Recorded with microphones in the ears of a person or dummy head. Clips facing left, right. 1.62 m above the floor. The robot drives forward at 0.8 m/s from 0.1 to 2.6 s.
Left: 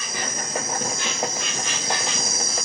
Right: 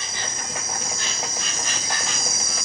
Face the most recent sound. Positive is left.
turn(degrees=-55)  # may be behind; listen again after turning